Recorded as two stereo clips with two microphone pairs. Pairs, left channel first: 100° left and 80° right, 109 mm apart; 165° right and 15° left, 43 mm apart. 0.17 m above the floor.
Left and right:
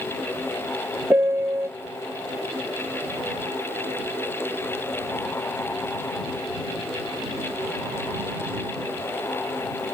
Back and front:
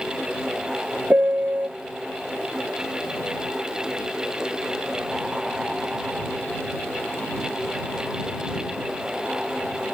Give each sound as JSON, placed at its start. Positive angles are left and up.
{"t": 1.1, "sound": "a piano", "azimuth_deg": -15}